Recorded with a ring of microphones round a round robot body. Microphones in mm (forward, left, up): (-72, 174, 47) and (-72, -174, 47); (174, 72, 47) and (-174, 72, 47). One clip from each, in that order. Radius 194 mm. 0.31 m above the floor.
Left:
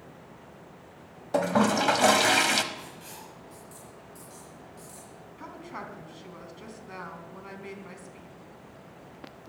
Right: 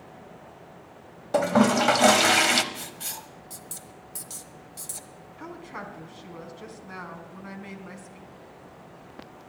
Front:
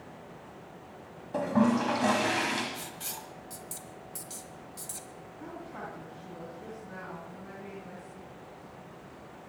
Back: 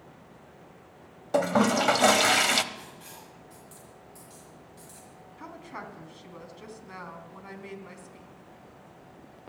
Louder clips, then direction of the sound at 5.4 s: Right 2 dB, back 1 dB; straight behind.